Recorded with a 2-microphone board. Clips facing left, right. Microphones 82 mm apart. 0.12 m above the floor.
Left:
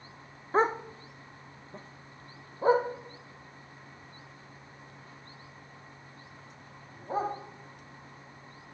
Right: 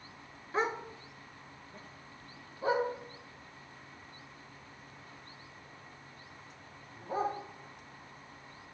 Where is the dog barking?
40° left (ahead or behind), 0.6 m; by 7.3 s 30° left (ahead or behind), 4 m.